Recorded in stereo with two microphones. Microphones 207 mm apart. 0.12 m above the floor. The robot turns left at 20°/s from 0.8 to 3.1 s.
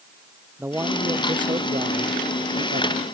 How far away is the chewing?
No chewing in this recording.